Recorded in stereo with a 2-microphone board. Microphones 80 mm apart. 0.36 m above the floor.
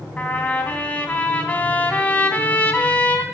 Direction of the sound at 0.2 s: 20° left (ahead or behind).